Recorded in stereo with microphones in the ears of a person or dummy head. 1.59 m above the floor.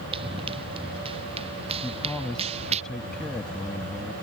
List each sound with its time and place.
0.1 s running footsteps: 35° right (ahead or behind)
1.8 s a man speaking: centre (ahead or behind)